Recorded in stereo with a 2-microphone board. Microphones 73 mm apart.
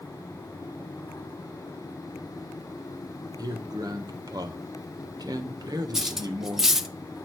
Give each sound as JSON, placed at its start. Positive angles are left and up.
{"t": 3.4, "sound": "a man speaking", "side_deg": -60, "distance_m": 1.3}
{"t": 5.9, "sound": "cutlery clinking", "side_deg": -5, "distance_m": 0.7}